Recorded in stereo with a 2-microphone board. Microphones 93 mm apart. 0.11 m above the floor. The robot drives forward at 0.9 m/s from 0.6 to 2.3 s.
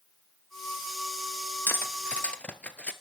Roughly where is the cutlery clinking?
Left.